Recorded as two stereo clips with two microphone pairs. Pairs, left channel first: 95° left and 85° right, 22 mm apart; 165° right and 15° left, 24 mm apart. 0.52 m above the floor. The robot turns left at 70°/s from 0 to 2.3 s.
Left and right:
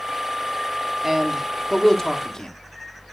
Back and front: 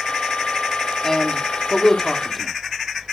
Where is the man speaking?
150° right, 1.3 m; by 2.5 s 120° left, 1.3 m.